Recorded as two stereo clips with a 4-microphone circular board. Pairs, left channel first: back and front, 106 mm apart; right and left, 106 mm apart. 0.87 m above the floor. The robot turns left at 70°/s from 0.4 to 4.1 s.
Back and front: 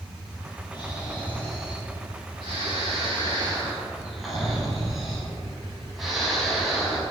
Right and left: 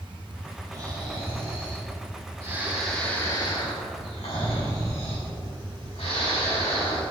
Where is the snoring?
150° left, 4.5 m; by 7.0 s 90° right, 4.5 m.